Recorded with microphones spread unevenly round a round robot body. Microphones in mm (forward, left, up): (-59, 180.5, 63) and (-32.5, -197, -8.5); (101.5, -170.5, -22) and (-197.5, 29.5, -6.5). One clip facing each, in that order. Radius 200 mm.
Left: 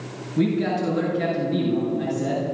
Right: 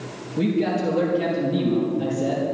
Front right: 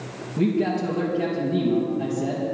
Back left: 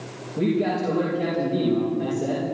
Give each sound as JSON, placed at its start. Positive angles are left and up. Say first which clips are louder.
{"t": 0.4, "sound": "a man speaking", "louder": "even, even", "azimuth_deg": 35, "distance_m": 4.5}